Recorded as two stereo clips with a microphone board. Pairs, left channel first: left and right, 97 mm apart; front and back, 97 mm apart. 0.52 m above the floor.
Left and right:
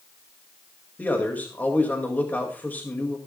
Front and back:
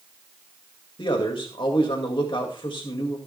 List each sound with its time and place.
1.0 s a man speaking: 20° left, 2 m